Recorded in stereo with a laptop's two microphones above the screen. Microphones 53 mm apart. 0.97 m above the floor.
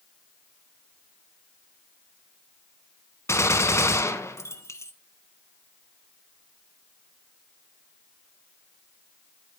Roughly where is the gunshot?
Left.